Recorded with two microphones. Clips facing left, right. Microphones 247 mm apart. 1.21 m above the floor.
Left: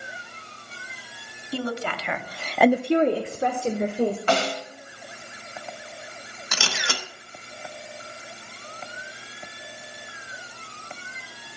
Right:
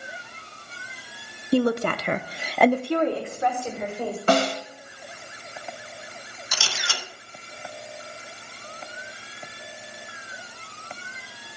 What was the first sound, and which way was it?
A woman speaking, 60° right (ahead or behind).